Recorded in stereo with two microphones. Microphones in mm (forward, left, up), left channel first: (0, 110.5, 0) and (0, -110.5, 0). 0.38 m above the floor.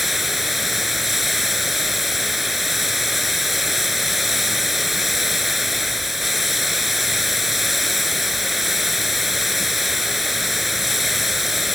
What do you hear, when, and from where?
0.0 s running water: centre (ahead or behind)